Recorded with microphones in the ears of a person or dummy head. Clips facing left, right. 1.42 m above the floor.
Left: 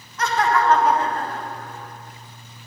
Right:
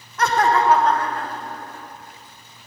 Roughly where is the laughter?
Right.